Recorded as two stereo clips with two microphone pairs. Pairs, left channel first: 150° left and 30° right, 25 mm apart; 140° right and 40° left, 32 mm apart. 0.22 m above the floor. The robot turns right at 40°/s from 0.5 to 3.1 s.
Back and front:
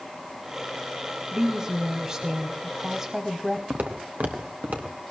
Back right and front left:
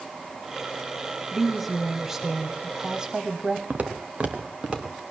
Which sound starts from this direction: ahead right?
A woman speaking, at 1.3 s.